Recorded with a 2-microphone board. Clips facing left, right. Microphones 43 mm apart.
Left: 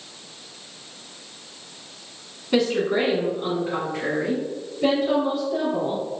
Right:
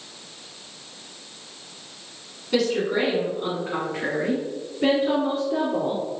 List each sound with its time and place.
2.5 s a woman speaking: 20° left (ahead or behind), 1.5 m; by 6.2 s 55° right (ahead or behind), 3 m